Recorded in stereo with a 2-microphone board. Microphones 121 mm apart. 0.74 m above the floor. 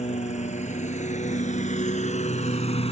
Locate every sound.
0.0 s a lawn mower: 75° left (ahead or behind); by 2.9 s 60° left (ahead or behind)